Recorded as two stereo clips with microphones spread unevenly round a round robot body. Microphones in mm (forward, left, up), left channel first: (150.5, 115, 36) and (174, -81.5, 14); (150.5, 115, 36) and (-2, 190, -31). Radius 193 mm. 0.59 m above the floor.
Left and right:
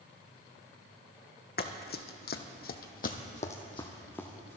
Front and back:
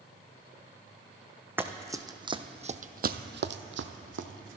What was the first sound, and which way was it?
Running footsteps, 65° left.